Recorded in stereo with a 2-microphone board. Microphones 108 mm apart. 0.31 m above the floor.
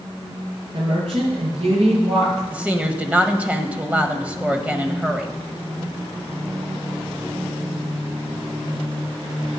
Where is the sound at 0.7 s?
55° right (ahead or behind), 5 m; by 2.4 s 70° right (ahead or behind), 6 m.